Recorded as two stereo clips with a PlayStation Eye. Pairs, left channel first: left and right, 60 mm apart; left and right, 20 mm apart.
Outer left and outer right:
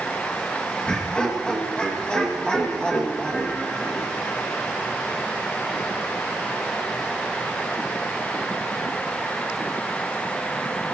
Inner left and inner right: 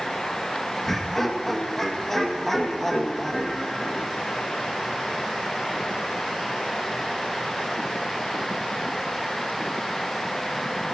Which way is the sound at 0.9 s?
15° left (ahead or behind).